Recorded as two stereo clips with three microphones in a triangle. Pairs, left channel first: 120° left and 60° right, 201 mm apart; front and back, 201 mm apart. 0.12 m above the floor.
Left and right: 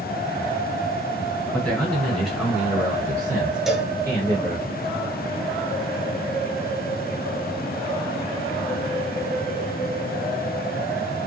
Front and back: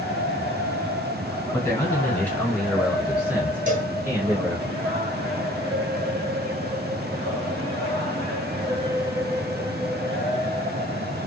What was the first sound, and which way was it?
A man speaking, 45° left.